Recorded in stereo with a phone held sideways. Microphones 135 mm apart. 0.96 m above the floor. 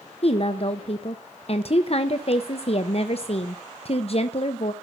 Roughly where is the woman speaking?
Left.